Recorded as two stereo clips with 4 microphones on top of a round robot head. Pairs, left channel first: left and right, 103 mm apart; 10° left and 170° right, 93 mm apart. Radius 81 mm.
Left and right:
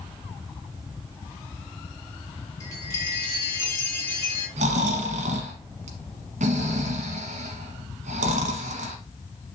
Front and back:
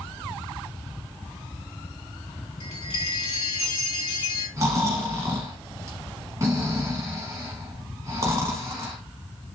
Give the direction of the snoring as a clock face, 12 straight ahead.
3 o'clock.